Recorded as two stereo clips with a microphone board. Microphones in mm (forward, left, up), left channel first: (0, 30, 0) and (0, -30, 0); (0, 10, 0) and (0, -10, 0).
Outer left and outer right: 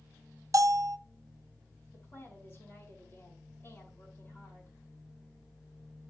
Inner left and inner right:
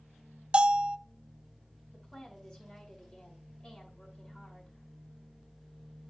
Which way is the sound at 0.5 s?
65° right (ahead or behind).